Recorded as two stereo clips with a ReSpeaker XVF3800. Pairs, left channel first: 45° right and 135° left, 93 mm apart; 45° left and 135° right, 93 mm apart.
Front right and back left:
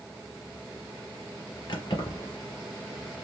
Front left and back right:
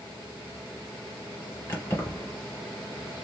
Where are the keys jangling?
15° right, 2.5 m.